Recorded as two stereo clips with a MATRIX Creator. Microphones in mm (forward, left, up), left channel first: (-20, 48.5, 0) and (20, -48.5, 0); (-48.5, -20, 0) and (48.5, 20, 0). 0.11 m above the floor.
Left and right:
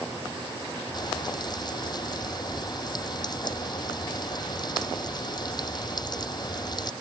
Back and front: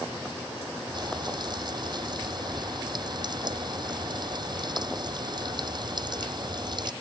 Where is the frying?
65° left.